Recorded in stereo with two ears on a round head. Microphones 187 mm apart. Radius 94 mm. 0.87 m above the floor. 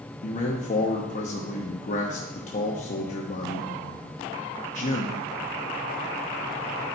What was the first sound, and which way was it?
A man speaking, 35° left (ahead or behind).